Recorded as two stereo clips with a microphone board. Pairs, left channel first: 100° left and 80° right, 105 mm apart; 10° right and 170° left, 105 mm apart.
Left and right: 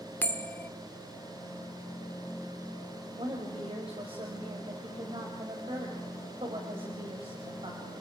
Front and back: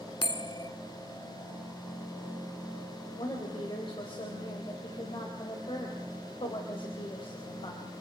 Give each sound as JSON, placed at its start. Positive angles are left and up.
{"t": 0.2, "sound": "a bell", "azimuth_deg": 30, "distance_m": 1.2}
{"t": 3.2, "sound": "a woman speaking", "azimuth_deg": -50, "distance_m": 3.5}